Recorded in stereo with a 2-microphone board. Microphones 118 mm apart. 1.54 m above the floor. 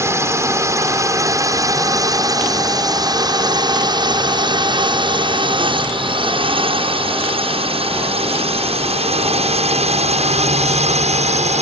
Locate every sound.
0.0 s a drone: 25° right (ahead or behind); by 11.6 s 70° right (ahead or behind)